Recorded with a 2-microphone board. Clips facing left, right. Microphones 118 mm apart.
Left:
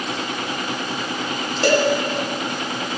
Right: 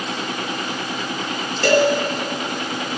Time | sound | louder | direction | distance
1.6 | a cowbell | right 2 dB | 15° left (ahead or behind) | 2 m